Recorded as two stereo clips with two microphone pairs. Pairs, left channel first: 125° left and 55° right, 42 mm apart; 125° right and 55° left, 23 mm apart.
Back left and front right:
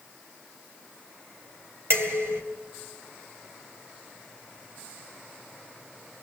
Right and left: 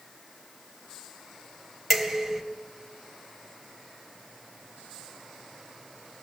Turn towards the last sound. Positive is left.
turn(degrees=-30)